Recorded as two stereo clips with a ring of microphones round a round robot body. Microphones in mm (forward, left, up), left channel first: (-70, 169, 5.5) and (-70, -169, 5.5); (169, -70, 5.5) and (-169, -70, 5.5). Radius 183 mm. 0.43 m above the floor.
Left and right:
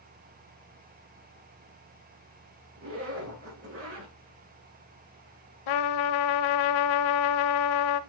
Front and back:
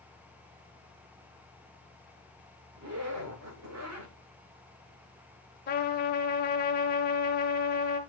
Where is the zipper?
140° right, 5.5 m.